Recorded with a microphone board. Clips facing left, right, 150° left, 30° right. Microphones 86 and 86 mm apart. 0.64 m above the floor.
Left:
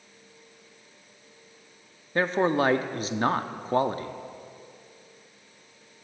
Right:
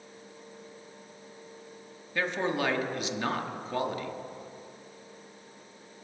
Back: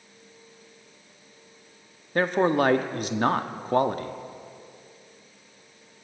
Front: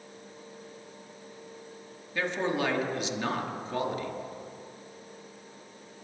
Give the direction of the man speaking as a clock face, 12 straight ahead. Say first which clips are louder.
Left 6 dB, back 8 dB; 8 o'clock.